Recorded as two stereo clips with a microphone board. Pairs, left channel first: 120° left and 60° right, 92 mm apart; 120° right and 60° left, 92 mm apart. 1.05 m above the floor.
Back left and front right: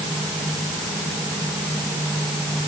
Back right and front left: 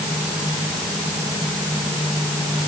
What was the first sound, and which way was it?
Only background noise.